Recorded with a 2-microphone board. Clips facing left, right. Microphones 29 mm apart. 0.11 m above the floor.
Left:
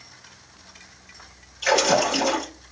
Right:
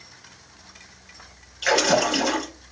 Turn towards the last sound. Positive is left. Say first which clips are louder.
# even
turn(degrees=-15)  # may be behind; listen again after turning